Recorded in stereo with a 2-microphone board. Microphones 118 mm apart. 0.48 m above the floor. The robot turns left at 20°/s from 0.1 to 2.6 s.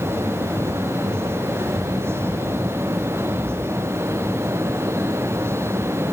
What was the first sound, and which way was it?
Only background noise.